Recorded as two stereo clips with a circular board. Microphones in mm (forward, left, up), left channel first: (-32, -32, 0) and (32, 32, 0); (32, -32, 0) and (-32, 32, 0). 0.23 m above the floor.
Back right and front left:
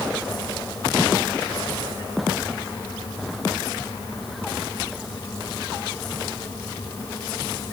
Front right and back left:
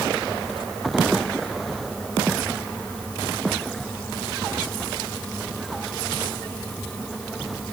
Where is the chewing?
I don't hear chewing.